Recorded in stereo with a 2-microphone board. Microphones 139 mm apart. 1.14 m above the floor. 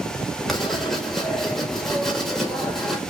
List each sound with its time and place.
0.5 s writing: centre (ahead or behind), 2 m